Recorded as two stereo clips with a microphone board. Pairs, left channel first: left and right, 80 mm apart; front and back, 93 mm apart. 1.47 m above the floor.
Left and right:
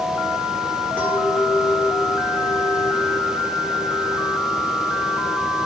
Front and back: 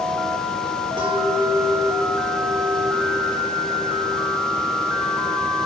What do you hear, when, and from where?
1.0 s a clink: 165° left, 6 m